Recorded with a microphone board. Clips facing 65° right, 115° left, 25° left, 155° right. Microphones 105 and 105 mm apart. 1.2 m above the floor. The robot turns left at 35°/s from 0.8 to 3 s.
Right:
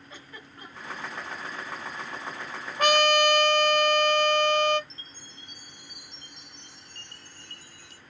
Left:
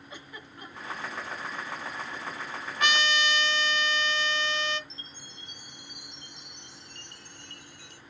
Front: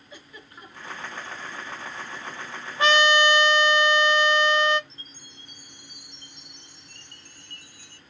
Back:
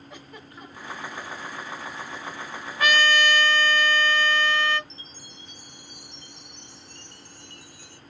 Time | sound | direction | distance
0.1 | a giggle | 170° right | 2.5 m
2.8 | a trumpet | 35° right | 0.7 m
4.9 | a chime | 15° right | 1.0 m